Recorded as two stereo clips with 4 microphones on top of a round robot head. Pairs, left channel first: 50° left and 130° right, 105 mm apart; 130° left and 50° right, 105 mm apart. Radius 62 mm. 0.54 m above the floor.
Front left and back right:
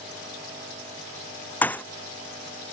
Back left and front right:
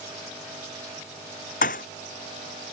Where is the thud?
130° left.